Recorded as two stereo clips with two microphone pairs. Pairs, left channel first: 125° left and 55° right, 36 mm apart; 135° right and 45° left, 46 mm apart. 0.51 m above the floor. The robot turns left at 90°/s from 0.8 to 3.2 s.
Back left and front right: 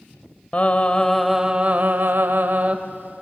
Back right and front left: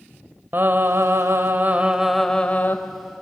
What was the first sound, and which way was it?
Singing, 75° left.